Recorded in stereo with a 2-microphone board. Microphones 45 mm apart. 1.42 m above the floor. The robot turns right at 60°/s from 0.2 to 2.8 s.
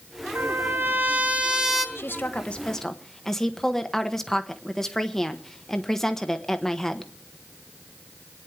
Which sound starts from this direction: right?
A trumpet, at 0.3 s.